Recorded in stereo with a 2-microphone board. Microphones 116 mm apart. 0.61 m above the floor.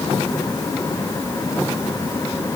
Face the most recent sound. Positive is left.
No sound to turn to.